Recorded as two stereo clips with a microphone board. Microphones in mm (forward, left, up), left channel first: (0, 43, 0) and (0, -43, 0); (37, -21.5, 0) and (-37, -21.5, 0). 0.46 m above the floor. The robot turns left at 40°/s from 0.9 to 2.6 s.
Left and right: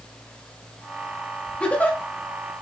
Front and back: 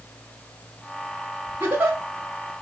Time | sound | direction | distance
1.6 | a giggle | 155° left | 0.9 m